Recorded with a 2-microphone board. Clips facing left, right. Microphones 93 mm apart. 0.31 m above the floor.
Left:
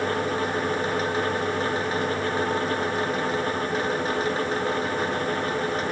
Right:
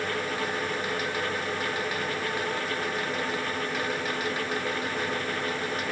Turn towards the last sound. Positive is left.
No sound to turn to.